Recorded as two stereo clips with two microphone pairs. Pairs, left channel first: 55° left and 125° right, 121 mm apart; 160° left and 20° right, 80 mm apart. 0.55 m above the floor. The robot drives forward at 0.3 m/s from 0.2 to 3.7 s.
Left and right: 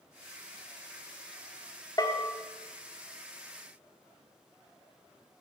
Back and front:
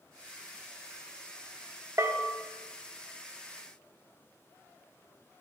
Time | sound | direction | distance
2.0 | a bell | 15° left | 1.4 m